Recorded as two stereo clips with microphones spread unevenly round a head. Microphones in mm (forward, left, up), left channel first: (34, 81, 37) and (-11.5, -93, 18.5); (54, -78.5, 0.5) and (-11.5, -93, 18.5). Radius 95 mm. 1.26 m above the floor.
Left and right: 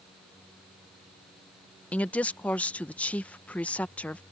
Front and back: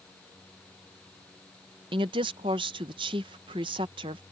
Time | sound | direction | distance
1.9 | a woman speaking | 160° left | ?